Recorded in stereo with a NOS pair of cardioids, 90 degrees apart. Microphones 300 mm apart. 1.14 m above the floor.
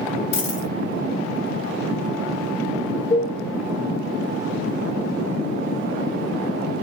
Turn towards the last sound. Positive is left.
turn(degrees=60)